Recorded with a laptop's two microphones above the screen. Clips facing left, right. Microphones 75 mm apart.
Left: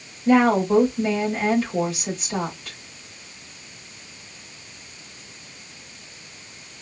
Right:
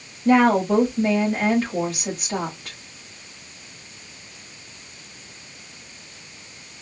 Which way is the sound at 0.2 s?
55° right (ahead or behind).